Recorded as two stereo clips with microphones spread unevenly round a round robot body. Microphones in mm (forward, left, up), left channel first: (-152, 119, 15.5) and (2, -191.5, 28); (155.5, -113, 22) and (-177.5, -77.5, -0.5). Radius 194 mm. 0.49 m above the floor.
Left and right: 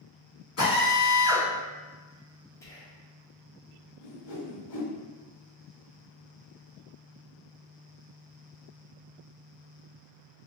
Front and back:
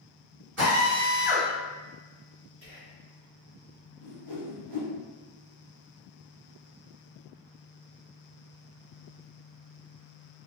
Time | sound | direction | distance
0.6 | a drill | 135° left | 1.7 m
2.6 | whispering | 170° right | 1.0 m
4.0 | a whoosh | 145° left | 1.1 m